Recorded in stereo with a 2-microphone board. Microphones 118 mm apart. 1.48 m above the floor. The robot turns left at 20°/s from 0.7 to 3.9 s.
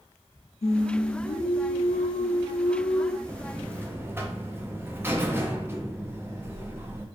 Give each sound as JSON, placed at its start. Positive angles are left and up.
{"t": 0.6, "sound": "singing", "azimuth_deg": 115, "distance_m": 0.5}
{"t": 3.3, "sound": "a buzzer", "side_deg": -25, "distance_m": 0.6}